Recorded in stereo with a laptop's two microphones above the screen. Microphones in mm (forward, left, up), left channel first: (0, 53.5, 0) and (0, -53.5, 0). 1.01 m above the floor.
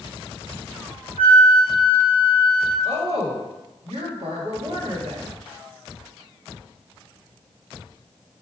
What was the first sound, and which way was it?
A flute, 80° right.